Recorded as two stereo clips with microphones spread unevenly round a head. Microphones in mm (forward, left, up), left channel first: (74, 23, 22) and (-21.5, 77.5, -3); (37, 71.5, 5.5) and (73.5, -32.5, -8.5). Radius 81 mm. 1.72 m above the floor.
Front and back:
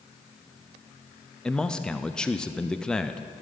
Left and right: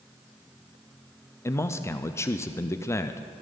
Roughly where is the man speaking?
Ahead left.